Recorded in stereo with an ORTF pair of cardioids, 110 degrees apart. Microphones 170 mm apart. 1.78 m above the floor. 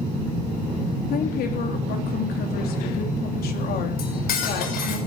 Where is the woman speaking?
65° left, 3.5 m.